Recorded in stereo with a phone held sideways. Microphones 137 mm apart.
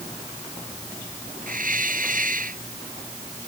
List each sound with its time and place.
1.5 s a hiss: 75° right (ahead or behind)